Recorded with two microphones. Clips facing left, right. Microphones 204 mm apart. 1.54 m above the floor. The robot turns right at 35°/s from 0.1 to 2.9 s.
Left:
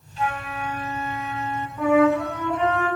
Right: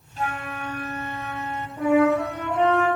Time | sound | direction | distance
0.2 | a flute | 125° right | 1.9 m
1.8 | a flute | 140° right | 8 m